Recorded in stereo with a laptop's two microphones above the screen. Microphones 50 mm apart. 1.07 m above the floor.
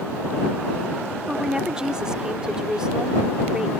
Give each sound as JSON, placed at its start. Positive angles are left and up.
{"t": 1.3, "sound": "a woman speaking", "side_deg": -15}